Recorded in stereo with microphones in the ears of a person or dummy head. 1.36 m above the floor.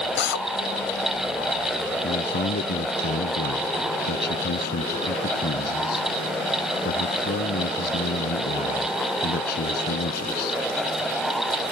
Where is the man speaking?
60° left (ahead or behind).